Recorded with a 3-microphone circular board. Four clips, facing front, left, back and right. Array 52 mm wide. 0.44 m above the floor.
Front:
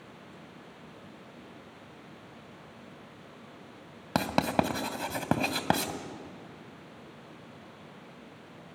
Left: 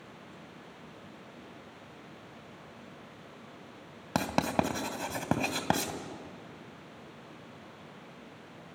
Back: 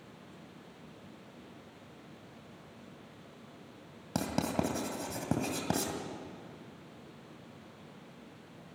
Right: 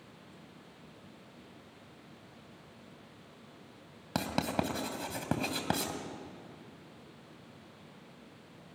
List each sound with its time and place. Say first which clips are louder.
4.2 s writing: left 4 dB, front 6 dB; 35° left, 1.9 m